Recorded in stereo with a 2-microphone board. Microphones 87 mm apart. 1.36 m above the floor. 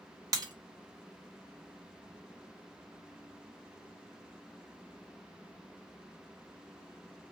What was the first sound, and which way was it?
Breaking glass, 40° right (ahead or behind).